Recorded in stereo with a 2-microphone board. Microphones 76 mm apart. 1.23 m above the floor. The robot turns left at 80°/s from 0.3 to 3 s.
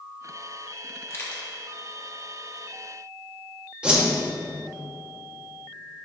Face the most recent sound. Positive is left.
turn(degrees=-10)  # may be behind; listen again after turning